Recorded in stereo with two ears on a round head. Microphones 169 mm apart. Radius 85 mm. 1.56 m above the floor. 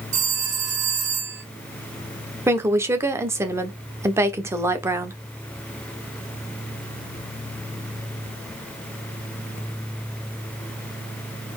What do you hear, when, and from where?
0.1 s a phone ringing: 45° right (ahead or behind), 2 m
2.5 s a woman speaking: 15° right (ahead or behind), 1.1 m